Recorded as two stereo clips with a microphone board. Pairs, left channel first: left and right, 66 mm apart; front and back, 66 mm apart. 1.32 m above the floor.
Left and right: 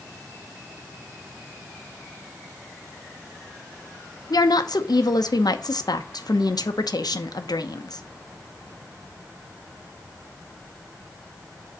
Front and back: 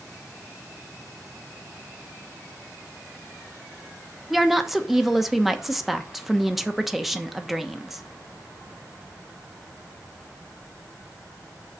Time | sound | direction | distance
4.3 | a woman speaking | 90° left | 0.9 m